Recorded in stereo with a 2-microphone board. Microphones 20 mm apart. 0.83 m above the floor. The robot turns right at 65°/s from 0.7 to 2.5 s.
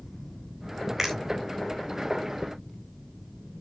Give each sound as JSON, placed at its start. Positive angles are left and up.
{"t": 1.0, "sound": "a finger snap", "side_deg": -25, "distance_m": 3.5}